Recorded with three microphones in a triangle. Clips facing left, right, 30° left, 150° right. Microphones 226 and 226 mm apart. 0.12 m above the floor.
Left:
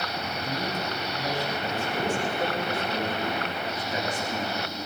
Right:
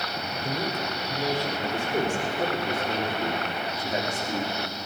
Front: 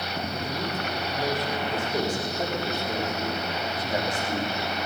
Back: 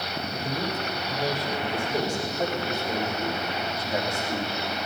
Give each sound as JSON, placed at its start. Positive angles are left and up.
{"t": 0.4, "sound": "a man speaking", "azimuth_deg": -70, "distance_m": 4.0}